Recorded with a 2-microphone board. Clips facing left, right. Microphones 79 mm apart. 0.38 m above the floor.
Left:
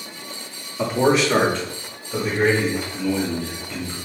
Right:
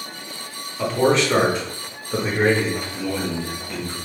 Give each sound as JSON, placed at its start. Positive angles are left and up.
{"t": 0.8, "sound": "a man speaking", "side_deg": 20, "distance_m": 1.2}